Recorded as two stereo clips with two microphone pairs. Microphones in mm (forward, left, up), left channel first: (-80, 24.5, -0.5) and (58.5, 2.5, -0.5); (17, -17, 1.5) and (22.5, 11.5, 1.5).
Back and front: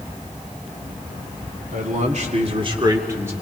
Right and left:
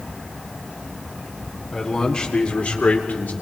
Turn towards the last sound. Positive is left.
turn(degrees=-85)